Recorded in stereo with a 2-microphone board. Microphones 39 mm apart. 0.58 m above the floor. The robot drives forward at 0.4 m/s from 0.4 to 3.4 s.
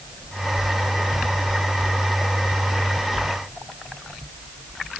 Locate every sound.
Only background noise.